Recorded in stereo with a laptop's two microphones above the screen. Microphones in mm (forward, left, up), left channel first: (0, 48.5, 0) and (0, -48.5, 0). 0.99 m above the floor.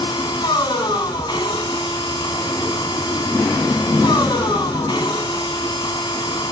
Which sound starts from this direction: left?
A machine running, at 0.0 s.